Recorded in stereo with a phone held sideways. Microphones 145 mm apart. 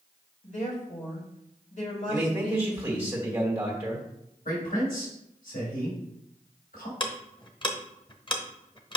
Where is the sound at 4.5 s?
80° left, 4 m.